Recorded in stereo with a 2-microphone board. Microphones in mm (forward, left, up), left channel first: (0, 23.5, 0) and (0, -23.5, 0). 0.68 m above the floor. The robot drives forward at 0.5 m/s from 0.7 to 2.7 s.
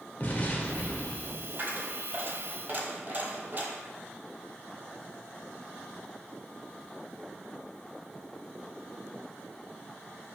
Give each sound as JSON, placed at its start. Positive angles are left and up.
{"t": 0.2, "sound": "an explosion", "side_deg": 35, "distance_m": 0.8}
{"t": 1.6, "sound": "a dropped coin", "side_deg": -45, "distance_m": 0.9}